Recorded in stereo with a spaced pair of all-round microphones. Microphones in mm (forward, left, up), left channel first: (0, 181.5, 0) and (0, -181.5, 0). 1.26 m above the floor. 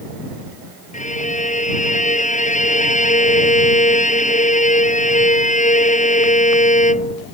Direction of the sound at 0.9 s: 20° left (ahead or behind).